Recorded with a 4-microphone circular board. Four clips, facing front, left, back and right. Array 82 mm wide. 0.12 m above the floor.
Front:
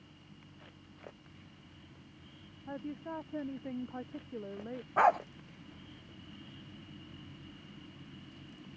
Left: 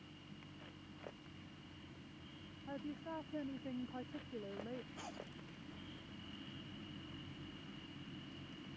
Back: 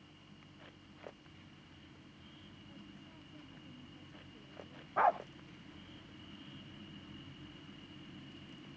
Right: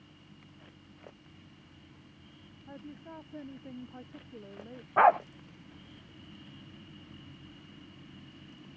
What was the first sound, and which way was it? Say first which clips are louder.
A woman speaking: left 1 dB, front 18 dB; 5° left.